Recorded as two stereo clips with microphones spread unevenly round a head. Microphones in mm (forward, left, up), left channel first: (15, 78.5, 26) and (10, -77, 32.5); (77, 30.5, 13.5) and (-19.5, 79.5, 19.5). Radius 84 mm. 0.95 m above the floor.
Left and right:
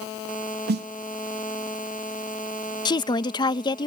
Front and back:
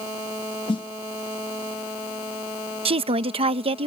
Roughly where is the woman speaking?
Behind left.